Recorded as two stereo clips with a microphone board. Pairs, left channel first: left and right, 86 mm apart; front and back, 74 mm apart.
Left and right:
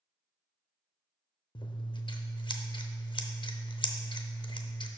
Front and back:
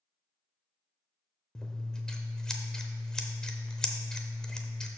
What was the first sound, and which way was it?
Scissors, 80° left.